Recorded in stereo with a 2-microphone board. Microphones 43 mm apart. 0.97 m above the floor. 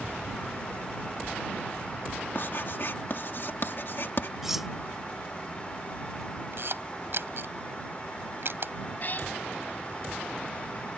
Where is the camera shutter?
60° right (ahead or behind).